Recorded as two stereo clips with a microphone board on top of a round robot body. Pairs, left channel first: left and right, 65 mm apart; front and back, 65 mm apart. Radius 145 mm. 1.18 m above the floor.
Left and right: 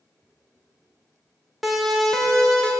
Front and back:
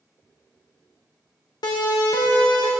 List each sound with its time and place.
1.6 s a siren: 5° right, 3.5 m; by 2.7 s 10° left, 4.5 m